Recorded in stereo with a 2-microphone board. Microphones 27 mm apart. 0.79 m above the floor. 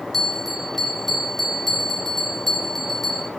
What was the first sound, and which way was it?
A bell, 5° left (ahead or behind).